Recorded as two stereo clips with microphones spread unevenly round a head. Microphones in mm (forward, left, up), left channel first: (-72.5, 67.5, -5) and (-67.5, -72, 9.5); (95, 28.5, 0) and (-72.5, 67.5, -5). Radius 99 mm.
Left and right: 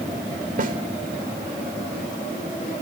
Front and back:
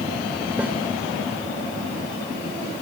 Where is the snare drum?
110° right, 3 m.